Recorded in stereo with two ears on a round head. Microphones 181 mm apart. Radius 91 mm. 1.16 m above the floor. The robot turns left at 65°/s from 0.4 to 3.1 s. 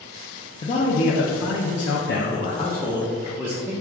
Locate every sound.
0.6 s a man speaking: 155° left, 0.6 m; by 3.7 s 10° right, 0.6 m